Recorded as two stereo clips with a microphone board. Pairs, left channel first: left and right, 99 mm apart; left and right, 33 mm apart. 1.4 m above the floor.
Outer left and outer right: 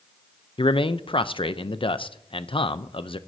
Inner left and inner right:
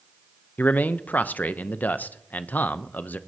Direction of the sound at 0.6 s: 60° left (ahead or behind).